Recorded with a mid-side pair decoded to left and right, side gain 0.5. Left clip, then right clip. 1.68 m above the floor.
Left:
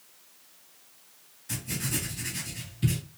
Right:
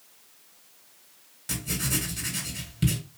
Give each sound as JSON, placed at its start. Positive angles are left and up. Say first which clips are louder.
{"t": 1.5, "sound": "writing", "louder": "right 3 dB", "azimuth_deg": -70, "distance_m": 1.7}